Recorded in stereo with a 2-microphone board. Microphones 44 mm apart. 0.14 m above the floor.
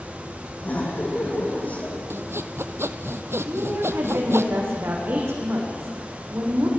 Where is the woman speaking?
60° right (ahead or behind), 8 m.